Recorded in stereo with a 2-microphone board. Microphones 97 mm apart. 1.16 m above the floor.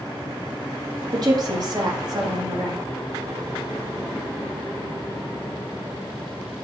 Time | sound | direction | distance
1.1 | a woman speaking | 45° right (ahead or behind) | 2.5 m